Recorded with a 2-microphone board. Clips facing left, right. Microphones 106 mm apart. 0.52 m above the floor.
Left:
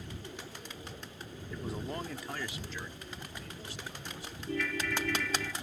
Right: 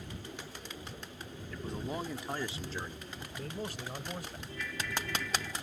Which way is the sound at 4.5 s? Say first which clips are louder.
Left 8 dB; 85° left.